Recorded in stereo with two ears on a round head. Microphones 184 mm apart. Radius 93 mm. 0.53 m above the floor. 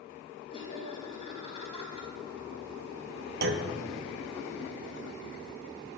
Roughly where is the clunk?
Right.